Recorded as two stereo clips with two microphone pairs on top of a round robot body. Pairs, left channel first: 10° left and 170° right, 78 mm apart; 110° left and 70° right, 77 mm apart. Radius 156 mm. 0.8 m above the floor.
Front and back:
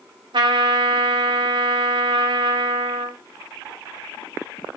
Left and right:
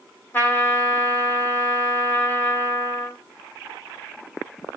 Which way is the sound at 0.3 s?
Straight behind.